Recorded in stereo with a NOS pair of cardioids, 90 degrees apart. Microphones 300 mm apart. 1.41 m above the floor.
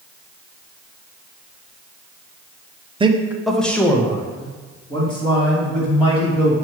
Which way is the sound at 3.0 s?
20° right.